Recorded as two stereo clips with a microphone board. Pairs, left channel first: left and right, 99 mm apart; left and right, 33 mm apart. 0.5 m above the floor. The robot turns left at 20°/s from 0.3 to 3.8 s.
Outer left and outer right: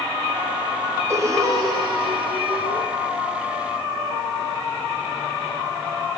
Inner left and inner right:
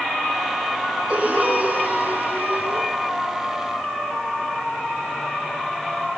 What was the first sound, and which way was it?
Breathing, 30° right.